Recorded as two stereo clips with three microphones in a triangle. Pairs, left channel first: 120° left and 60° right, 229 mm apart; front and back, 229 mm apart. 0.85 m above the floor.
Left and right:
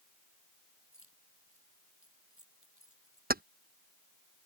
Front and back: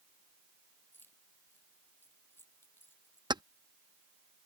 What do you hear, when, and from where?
0.9 s keys jangling: 80° right
3.3 s keys jangling: 110° right